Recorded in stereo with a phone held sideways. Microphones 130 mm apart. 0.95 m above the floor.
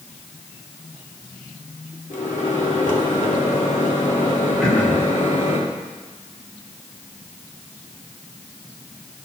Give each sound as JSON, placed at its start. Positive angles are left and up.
{"t": 2.1, "sound": "a microwave", "side_deg": 75, "distance_m": 1.6}
{"t": 4.6, "sound": "throat clearing", "side_deg": 5, "distance_m": 1.7}